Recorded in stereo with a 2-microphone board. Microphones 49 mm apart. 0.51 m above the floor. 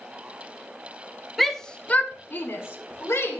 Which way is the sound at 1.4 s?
Centre (ahead or behind).